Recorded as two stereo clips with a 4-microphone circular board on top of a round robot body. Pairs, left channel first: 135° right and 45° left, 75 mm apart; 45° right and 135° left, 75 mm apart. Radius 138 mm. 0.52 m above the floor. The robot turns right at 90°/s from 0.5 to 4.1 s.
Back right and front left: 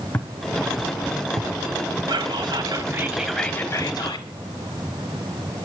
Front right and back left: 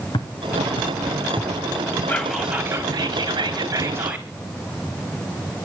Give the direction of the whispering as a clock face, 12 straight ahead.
11 o'clock.